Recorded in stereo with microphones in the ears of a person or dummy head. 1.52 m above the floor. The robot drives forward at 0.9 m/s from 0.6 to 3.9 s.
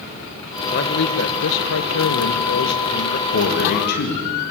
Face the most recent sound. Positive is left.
turn(degrees=50)  # may be behind; listen again after turning